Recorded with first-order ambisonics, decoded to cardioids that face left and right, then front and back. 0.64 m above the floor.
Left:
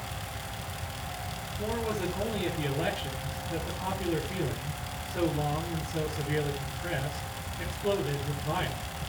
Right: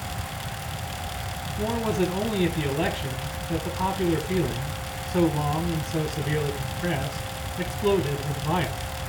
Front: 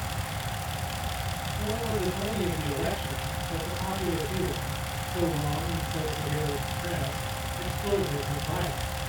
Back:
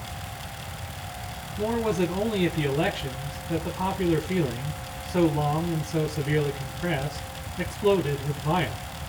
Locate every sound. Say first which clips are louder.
1.6 s a man speaking: right 6 dB, back 6 dB; 130° right, 2.5 m